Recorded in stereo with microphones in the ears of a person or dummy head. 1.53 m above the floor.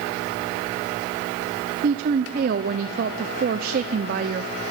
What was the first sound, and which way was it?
A woman speaking, 50° right (ahead or behind).